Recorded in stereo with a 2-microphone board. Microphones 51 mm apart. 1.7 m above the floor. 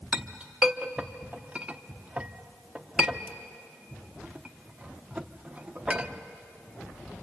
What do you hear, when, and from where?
0.1 s a clink: 20° right (ahead or behind), 0.8 m